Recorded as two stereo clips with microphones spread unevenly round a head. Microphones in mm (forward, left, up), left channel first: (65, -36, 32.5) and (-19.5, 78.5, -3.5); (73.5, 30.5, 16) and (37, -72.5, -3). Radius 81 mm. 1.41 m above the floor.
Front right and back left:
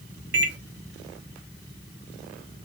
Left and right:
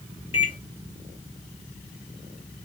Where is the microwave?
130° left, 1.2 m.